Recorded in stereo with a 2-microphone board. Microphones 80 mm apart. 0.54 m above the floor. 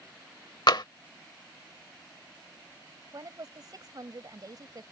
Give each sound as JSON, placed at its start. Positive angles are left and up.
{"t": 0.7, "sound": "tapping", "side_deg": 65}
{"t": 3.1, "sound": "a woman speaking", "side_deg": -50}